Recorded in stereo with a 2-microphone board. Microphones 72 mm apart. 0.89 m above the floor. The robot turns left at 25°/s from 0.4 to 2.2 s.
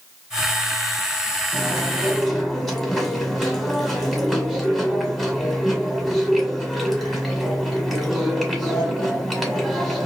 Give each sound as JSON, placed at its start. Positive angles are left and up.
{"t": 1.5, "sound": "chewing", "side_deg": -15, "distance_m": 1.7}